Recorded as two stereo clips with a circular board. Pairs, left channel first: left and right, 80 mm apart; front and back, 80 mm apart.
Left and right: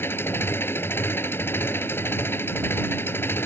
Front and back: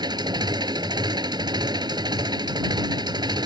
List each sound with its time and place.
0.0 s an engine running: 150° left